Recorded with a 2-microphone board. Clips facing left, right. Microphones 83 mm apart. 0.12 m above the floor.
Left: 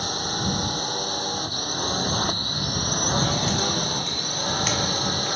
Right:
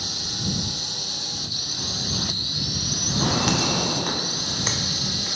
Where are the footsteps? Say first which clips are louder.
Right 2 dB; 60° right (ahead or behind); by 5.4 s 15° right (ahead or behind).